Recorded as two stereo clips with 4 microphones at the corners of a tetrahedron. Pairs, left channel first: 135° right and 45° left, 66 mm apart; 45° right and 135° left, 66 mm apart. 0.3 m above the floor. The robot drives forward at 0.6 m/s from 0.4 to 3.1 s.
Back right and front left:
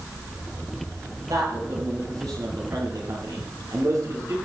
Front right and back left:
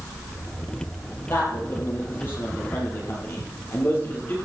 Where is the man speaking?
10° left, 6.5 m; by 4.3 s 15° left, 5.5 m.